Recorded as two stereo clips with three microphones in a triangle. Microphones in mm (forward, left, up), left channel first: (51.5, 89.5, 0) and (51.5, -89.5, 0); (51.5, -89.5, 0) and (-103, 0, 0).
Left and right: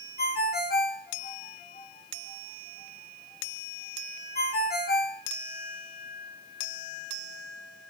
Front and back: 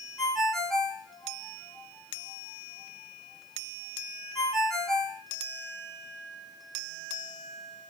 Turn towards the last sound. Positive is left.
turn(degrees=60)